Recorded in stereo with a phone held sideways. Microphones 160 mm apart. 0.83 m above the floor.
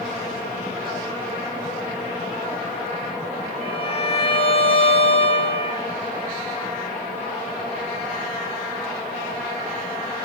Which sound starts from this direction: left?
A violin, at 3.6 s.